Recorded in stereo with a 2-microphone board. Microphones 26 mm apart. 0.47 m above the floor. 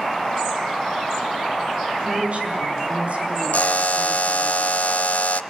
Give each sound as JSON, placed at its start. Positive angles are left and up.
{"t": 2.0, "sound": "a woman speaking", "side_deg": -55, "distance_m": 6.5}
{"t": 3.5, "sound": "a buzzer", "side_deg": 80, "distance_m": 0.5}